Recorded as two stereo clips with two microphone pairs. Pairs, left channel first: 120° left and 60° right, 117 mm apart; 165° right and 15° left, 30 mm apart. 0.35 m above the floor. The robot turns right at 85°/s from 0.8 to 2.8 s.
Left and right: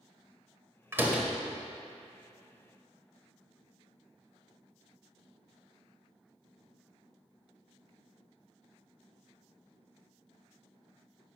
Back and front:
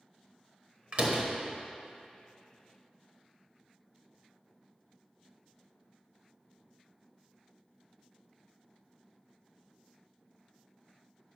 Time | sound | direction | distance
0.9 | a door slam | straight ahead | 1.2 m